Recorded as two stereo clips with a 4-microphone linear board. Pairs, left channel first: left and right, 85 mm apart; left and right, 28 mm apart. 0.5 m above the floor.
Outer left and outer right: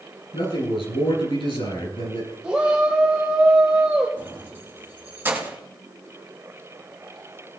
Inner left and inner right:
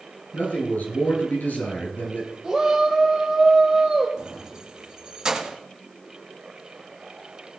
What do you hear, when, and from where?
0.3 s a man speaking: 85° left, 8 m
2.4 s a shout: 15° right (ahead or behind), 1.6 m
4.2 s keys jangling: 25° right (ahead or behind), 2 m